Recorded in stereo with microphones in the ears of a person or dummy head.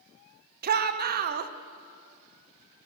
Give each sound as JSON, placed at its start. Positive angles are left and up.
{"t": 0.6, "sound": "a shout", "side_deg": -45, "distance_m": 1.0}